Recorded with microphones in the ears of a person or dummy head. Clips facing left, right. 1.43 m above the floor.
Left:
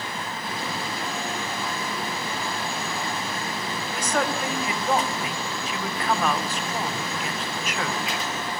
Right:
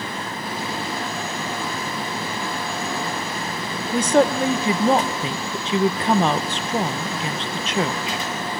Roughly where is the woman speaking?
Right.